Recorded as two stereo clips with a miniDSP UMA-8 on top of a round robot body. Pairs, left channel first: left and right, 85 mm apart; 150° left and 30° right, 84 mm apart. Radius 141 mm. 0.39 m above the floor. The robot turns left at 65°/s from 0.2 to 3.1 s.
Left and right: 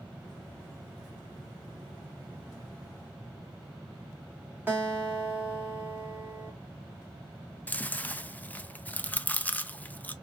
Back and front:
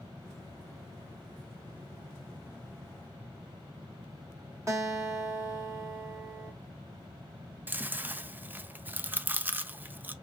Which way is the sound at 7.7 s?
30° left.